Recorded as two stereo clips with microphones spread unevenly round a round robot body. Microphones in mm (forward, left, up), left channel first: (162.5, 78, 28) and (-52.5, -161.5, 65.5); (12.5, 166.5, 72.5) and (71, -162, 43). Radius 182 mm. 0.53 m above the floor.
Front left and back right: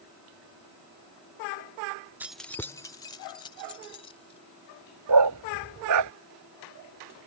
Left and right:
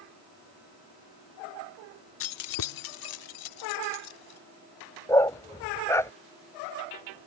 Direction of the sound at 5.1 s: Straight behind.